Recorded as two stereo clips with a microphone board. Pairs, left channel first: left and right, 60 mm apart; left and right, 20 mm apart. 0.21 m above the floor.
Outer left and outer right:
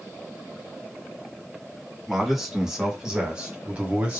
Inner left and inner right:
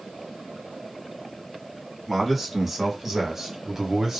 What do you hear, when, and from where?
2.1 s a man speaking: centre (ahead or behind), 1.7 m; by 4.2 s 25° right (ahead or behind), 1.4 m